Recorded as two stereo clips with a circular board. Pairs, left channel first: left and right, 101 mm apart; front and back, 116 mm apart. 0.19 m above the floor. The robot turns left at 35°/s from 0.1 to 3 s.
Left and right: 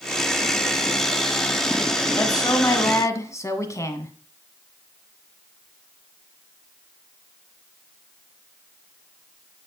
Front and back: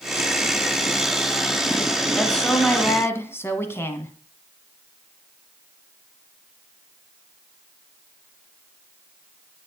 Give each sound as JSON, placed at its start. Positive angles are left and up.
{"t": 2.1, "sound": "a woman speaking", "azimuth_deg": 85, "distance_m": 1.4}